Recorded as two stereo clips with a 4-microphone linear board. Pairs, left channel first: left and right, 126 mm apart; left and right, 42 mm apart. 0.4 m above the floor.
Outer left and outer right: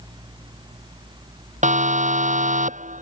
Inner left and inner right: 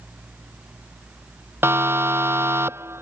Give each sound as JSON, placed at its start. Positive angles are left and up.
{"t": 1.6, "sound": "a siren", "side_deg": -70}